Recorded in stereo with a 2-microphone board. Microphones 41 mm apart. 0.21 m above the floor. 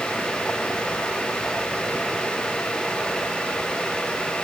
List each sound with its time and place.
Only background noise.